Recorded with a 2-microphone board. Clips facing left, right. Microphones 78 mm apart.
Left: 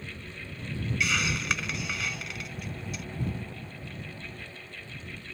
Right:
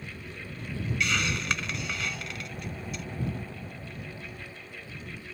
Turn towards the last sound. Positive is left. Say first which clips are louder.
# even
turn(degrees=0)  # may be behind; listen again after turning